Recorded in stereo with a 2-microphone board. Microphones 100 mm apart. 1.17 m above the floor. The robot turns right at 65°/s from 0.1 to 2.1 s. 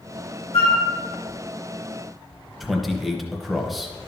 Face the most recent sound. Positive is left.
turn(degrees=0)  # may be behind; listen again after turning